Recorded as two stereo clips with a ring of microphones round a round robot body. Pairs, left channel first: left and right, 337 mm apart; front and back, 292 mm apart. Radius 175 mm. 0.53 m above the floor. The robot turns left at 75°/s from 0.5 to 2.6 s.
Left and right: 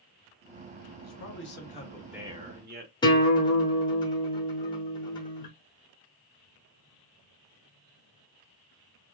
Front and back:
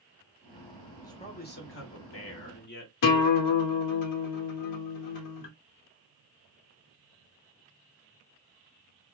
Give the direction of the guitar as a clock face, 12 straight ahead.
12 o'clock.